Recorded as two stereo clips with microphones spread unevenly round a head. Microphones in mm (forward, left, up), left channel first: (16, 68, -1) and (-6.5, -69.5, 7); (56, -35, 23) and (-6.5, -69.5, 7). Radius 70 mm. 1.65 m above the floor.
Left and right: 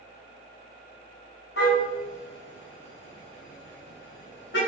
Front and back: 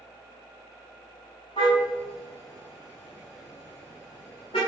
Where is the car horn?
75° left, 6.5 m; by 4.6 s 80° left, 9.5 m.